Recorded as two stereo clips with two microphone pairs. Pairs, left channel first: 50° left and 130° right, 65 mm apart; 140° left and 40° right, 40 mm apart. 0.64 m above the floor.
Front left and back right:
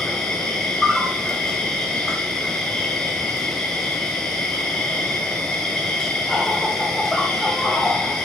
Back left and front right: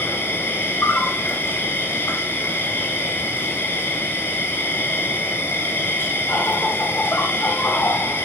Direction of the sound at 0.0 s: 130° left.